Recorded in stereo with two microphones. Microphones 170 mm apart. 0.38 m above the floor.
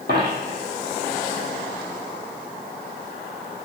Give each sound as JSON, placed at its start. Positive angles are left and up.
{"t": 0.1, "sound": "a dropped coin", "side_deg": -75, "distance_m": 1.1}